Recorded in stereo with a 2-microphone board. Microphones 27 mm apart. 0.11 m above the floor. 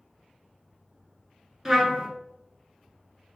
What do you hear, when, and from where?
1.6 s a trumpet: 10° right (ahead or behind), 0.7 m